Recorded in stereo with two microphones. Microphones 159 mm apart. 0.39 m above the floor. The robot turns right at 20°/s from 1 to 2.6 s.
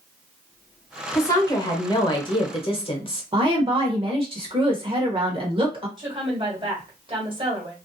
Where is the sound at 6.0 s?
30° right (ahead or behind), 1.7 m.